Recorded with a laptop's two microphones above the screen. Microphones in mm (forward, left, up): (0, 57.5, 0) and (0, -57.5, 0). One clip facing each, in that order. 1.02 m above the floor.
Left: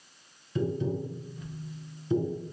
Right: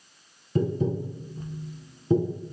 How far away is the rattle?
I don't hear a rattle.